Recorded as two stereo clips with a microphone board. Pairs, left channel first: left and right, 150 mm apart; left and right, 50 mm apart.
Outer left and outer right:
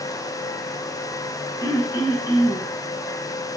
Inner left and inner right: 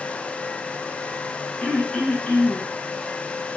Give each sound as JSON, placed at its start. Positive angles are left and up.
{"t": 1.6, "sound": "throat clearing", "side_deg": 25, "distance_m": 1.0}